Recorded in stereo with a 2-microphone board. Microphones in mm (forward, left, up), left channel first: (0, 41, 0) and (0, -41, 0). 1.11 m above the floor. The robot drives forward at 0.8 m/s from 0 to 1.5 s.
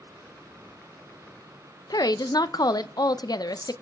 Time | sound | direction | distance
1.9 | a woman speaking | 50° left (ahead or behind) | 0.5 m